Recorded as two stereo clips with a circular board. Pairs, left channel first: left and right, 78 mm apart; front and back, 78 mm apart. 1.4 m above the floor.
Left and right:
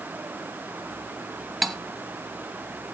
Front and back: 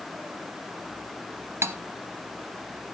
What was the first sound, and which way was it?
Cutlery clinking, straight behind.